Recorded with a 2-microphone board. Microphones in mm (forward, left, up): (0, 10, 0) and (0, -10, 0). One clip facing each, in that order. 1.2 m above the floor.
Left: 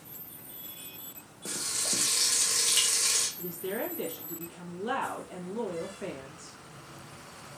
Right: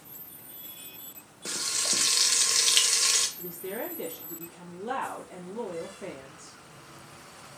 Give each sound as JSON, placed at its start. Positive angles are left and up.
{"t": 1.4, "sound": "frying", "side_deg": -45, "distance_m": 0.5}
{"t": 3.4, "sound": "a woman speaking", "side_deg": 75, "distance_m": 1.6}